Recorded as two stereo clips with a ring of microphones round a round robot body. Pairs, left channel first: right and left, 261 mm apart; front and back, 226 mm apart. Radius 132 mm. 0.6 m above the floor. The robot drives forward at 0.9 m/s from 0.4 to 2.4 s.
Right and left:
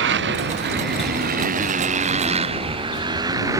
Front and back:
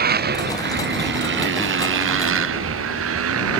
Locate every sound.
0.0 s a motorcycle: 135° left; by 3.6 s 170° left